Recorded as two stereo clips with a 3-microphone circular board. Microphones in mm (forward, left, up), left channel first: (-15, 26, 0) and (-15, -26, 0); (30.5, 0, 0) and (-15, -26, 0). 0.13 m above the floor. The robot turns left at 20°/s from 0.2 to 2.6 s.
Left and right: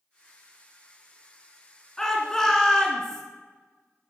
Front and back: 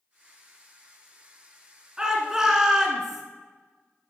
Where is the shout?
155° left, 1.1 m; by 3.2 s 145° left, 1.1 m.